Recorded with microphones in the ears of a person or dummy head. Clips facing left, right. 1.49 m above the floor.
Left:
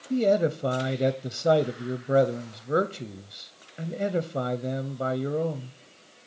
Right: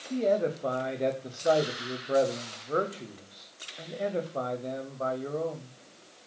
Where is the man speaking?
30° left (ahead or behind), 0.6 m.